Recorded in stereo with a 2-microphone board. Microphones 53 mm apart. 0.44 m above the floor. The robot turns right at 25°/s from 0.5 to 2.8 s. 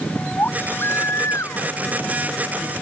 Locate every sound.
0.4 s a baby crying: 40° left; by 2.7 s 95° left